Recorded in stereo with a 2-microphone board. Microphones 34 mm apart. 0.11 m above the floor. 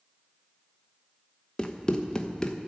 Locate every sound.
1.6 s running footsteps: 20° left (ahead or behind), 0.9 m